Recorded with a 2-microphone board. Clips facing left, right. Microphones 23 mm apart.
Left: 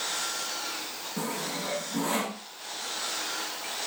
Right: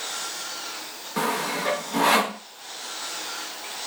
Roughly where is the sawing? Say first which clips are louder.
Right 8 dB; right.